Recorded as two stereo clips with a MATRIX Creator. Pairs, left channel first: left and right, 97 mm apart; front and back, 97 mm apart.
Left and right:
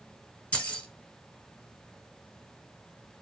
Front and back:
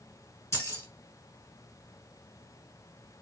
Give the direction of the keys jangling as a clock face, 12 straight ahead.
11 o'clock.